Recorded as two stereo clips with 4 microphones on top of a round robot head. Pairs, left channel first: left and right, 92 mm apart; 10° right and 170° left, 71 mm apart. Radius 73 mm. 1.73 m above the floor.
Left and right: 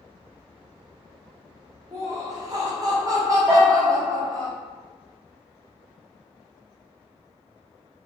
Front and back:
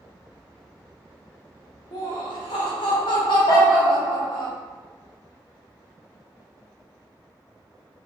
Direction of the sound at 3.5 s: Straight ahead.